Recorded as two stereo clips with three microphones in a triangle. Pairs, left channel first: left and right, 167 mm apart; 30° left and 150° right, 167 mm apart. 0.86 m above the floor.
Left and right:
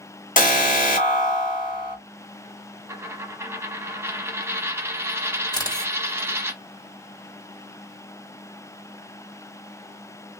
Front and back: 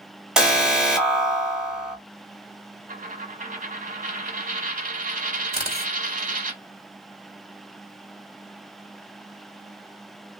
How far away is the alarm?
About 1.6 m.